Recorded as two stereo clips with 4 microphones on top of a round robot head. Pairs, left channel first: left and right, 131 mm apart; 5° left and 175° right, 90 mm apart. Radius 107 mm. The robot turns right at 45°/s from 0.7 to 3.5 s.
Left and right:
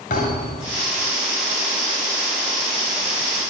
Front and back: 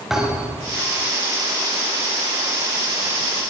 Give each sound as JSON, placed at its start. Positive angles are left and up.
{"t": 0.1, "sound": "a thud", "azimuth_deg": 100, "distance_m": 7.0}